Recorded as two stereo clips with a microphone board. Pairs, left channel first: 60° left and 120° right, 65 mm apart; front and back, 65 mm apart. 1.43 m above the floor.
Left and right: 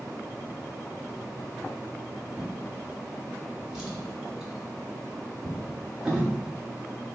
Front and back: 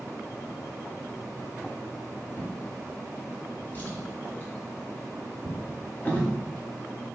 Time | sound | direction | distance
2.4 | a drawer | 45° right | 1.2 m